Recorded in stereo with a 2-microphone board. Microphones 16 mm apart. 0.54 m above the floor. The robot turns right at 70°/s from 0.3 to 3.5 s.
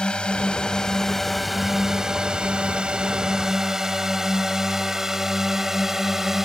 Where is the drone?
65° left (ahead or behind); by 6.5 s 25° right (ahead or behind).